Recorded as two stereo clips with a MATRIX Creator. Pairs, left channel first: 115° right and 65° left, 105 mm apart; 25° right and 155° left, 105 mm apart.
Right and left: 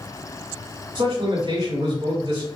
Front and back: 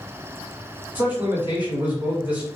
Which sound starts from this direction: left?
A man speaking, at 0.9 s.